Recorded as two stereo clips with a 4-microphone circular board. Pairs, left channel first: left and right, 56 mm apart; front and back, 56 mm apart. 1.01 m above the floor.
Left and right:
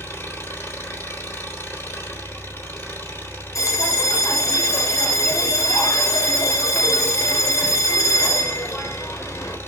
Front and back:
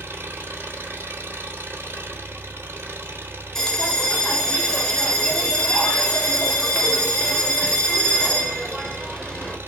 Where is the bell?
80° left, 1.7 m.